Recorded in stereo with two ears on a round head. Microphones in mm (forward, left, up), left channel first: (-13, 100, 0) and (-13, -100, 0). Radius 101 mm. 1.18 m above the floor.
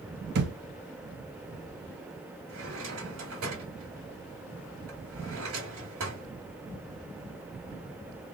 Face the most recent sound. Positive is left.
turn(degrees=-70)  # may be behind; listen again after turning